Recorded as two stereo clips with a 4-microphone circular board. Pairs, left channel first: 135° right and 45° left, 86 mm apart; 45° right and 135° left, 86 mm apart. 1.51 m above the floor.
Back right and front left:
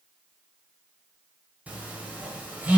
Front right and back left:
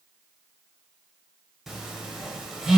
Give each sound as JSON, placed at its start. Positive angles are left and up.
{"t": 1.7, "sound": "a phone buzzing", "azimuth_deg": 55, "distance_m": 1.3}